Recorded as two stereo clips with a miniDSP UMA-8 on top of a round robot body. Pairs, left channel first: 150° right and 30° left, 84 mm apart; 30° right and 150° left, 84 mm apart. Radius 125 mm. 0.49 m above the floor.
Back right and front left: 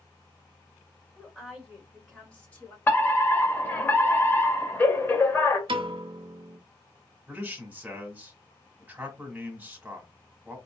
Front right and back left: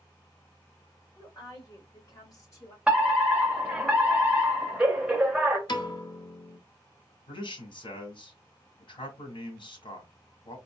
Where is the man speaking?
45° right, 2 m.